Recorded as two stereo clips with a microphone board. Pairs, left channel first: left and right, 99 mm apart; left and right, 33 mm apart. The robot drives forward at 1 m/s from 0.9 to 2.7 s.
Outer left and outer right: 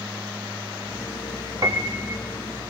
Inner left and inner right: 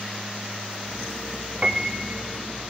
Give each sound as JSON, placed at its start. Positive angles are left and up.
{"t": 1.6, "sound": "a piano", "side_deg": -35, "distance_m": 4.0}